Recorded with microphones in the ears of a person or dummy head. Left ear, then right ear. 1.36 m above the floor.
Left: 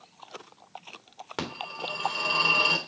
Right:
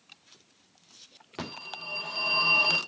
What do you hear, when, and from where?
1.4 s a phone ringing: 30° left (ahead or behind), 2.5 m